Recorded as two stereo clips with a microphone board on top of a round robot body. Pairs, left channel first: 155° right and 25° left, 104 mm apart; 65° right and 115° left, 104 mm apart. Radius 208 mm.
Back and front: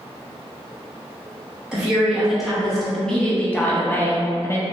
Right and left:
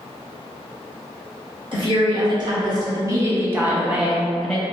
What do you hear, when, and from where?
1.7 s a woman speaking: 100° left, 1.8 m; by 4.6 s 140° right, 1.3 m